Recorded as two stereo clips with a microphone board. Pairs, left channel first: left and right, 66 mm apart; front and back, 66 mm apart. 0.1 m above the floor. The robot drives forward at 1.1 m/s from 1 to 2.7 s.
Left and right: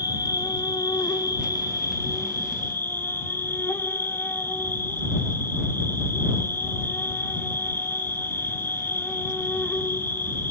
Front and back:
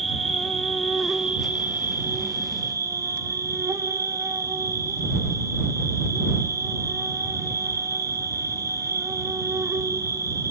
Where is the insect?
90° left, 1.4 m; by 10.5 s 145° left, 2.5 m.